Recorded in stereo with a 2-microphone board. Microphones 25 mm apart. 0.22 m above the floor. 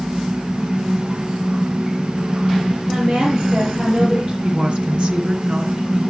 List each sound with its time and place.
2.9 s a woman speaking: 25° right (ahead or behind), 5 m
4.4 s a woman speaking: 40° right (ahead or behind), 3 m